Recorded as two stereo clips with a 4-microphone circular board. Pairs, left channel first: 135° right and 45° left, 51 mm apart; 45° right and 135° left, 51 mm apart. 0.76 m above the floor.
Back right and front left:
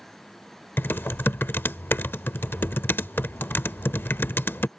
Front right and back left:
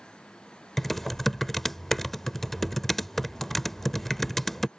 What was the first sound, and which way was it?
Typing on a keyboard, 120° right.